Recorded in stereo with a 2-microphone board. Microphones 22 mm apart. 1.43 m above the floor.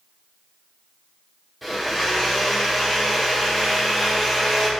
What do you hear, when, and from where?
1.6 s a blender: 5° left (ahead or behind), 1.8 m